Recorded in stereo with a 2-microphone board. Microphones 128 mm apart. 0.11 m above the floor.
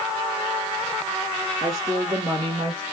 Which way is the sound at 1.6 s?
25° right (ahead or behind).